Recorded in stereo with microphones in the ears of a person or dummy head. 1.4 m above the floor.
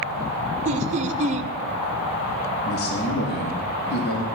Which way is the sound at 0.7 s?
35° right (ahead or behind).